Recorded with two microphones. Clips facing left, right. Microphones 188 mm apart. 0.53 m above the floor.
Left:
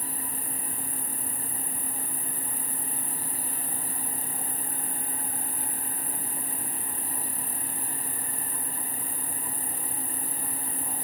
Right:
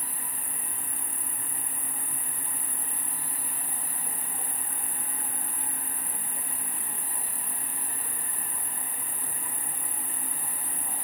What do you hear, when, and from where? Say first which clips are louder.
0.0 s an insect: left 6 dB; 45° left (ahead or behind), 0.8 m